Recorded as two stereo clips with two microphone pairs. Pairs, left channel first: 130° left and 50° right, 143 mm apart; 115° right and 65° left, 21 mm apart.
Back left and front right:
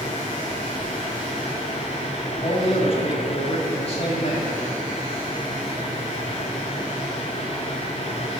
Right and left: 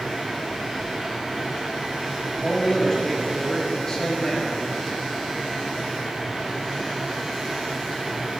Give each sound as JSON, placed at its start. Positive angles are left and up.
{"t": 2.4, "sound": "a man speaking", "azimuth_deg": 180, "distance_m": 2.0}